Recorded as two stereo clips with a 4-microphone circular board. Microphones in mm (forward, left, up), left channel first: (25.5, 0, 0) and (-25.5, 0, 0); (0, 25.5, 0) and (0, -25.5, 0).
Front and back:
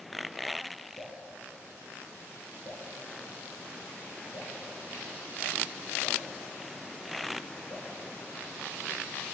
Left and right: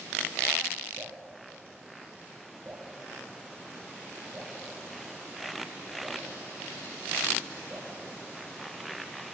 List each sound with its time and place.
1.0 s dripping: 25° right, 3.5 m